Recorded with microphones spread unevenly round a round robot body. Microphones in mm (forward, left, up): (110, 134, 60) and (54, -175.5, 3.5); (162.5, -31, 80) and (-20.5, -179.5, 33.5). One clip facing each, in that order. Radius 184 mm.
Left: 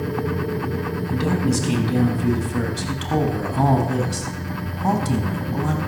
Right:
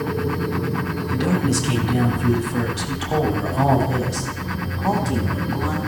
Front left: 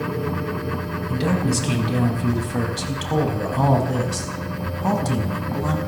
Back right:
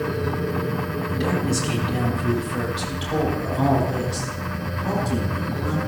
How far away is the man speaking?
About 5 m.